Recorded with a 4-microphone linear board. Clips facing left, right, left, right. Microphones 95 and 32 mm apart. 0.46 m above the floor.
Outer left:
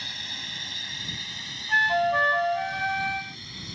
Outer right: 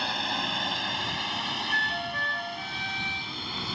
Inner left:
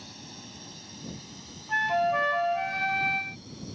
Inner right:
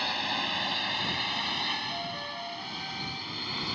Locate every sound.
0.0 s a drone: 60° right (ahead or behind); by 3.8 s 65° right (ahead or behind)
1.7 s a flute: 60° left (ahead or behind)